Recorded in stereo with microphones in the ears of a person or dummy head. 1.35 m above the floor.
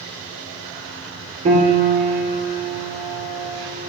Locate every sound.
1.4 s a piano: 35° right (ahead or behind), 2 m